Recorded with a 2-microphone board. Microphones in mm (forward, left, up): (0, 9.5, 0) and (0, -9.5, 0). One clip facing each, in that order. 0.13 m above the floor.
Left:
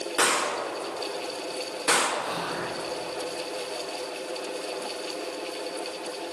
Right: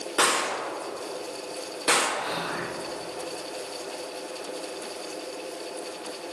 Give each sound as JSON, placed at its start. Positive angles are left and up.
{"t": 0.2, "sound": "a gunshot", "side_deg": -40, "distance_m": 2.5}
{"t": 2.2, "sound": "whispering", "side_deg": -50, "distance_m": 1.9}